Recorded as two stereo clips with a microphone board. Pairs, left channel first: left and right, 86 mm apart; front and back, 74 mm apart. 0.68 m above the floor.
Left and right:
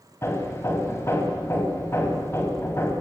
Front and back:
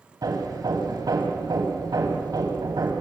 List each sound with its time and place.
0.2 s hammering: 150° left, 3.5 m